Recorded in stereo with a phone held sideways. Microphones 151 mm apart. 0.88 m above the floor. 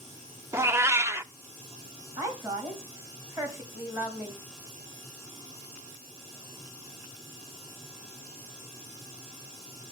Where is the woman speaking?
20° right (ahead or behind), 4 m.